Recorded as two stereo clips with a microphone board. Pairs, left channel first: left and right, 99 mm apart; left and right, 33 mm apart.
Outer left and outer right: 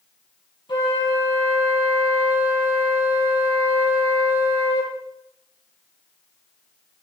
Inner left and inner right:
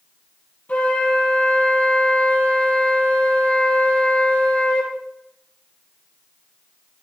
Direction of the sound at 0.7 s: 55° left (ahead or behind).